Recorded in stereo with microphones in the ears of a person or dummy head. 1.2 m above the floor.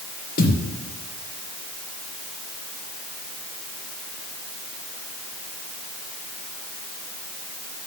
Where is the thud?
60° left (ahead or behind), 4 m.